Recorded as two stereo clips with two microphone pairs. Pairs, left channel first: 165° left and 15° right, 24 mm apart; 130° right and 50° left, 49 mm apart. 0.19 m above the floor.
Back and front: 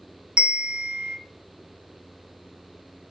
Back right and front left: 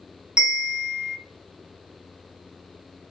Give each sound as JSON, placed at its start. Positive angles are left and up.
{"t": 0.4, "sound": "a bell", "azimuth_deg": -15, "distance_m": 1.6}